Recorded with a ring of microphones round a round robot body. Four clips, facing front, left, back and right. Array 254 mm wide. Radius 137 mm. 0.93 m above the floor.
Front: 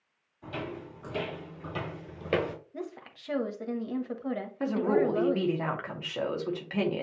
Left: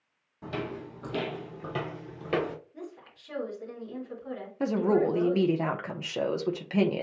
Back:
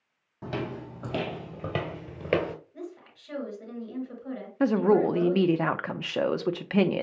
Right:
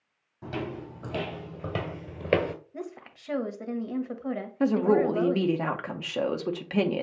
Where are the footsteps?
175° right, 2.5 m; by 2.5 s 100° right, 1.0 m.